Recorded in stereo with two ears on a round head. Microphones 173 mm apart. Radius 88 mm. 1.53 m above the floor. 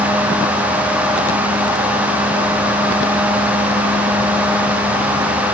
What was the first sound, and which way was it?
Only background noise.